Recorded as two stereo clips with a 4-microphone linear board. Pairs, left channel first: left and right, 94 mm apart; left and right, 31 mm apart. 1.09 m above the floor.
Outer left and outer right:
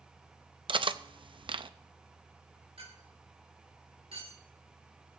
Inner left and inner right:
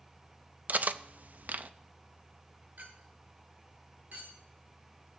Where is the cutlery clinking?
60° right (ahead or behind), 0.5 m.